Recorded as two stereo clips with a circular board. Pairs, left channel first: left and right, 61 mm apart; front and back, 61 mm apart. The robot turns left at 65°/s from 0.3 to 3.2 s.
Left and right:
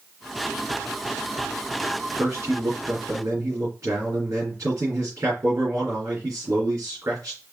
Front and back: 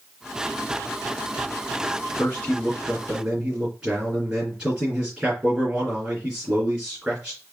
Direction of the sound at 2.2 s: 40° right.